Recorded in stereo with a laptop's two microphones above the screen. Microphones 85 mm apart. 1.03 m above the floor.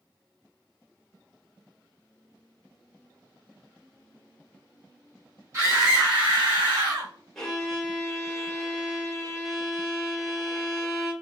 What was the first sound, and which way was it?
A scream, 35° right (ahead or behind).